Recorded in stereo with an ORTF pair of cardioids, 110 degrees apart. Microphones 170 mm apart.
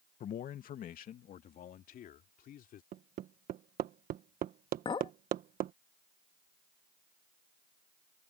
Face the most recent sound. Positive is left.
turn(degrees=35)